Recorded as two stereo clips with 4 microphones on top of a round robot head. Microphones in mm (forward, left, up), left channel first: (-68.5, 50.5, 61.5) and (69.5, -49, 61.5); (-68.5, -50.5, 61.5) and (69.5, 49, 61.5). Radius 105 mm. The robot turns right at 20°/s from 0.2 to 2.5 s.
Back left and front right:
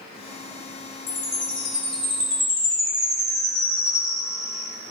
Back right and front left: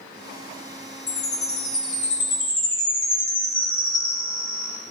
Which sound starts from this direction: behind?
A chime, at 1.1 s.